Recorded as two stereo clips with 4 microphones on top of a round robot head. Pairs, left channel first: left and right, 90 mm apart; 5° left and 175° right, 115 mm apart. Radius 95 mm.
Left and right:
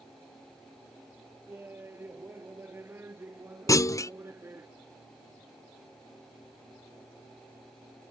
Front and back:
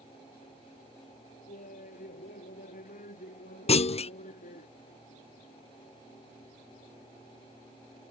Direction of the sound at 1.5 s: 25° right.